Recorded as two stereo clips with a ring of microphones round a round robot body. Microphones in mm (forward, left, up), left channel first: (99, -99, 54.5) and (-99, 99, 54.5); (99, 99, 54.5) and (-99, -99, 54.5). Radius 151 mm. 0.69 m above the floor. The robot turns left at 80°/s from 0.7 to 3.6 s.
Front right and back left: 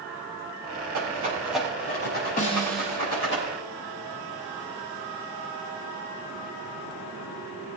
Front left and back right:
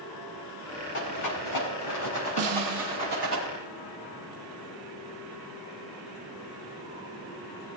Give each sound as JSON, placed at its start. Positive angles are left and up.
{"t": 0.9, "sound": "a rattle", "azimuth_deg": 95, "distance_m": 5.5}
{"t": 2.4, "sound": "a snare drum", "azimuth_deg": -105, "distance_m": 2.0}